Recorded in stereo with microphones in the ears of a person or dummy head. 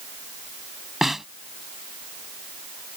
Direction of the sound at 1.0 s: 10° right (ahead or behind).